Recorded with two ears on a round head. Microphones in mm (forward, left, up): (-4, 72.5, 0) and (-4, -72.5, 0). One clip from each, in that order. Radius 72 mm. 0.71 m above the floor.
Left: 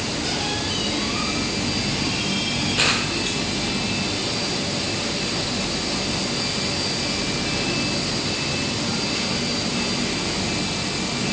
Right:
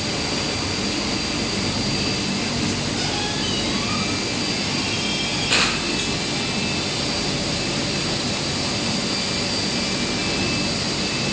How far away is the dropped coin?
No dropped coin in this recording.